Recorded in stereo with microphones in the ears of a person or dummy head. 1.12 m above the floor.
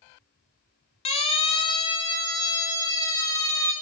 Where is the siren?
35° left (ahead or behind), 3 m; by 3.7 s 15° left (ahead or behind), 4 m.